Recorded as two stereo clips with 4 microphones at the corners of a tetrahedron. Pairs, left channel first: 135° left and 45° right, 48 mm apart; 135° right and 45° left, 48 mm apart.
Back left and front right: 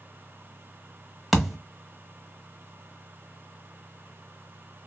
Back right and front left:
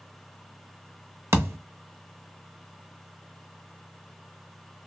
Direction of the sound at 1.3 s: 40° left.